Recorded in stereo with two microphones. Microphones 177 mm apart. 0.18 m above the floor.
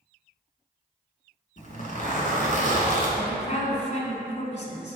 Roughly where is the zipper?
Left.